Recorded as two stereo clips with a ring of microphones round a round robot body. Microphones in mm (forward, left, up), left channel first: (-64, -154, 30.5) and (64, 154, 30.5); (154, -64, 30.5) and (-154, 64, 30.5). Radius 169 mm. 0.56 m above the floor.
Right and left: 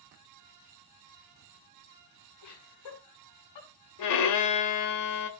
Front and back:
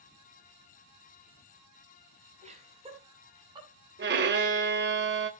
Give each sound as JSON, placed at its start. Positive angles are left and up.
{"t": 2.4, "sound": "laughter", "azimuth_deg": -130, "distance_m": 5.5}
{"t": 4.0, "sound": "a violin", "azimuth_deg": -145, "distance_m": 1.8}